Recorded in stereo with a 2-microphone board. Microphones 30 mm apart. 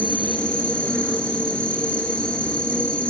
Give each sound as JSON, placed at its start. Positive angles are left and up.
{"t": 0.0, "sound": "an insect", "side_deg": 40, "distance_m": 0.9}